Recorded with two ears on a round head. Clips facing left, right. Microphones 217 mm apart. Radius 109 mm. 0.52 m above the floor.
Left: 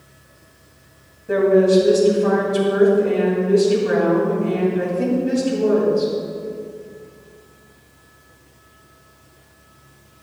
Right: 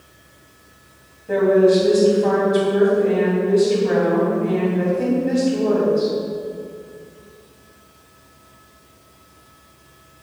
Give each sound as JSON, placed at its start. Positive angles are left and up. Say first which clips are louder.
{"t": 1.3, "sound": "a woman speaking", "louder": "even", "side_deg": 15, "distance_m": 3.5}